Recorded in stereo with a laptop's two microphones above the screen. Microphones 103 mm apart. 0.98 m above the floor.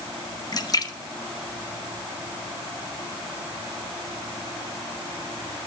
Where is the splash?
40° left (ahead or behind), 0.9 m.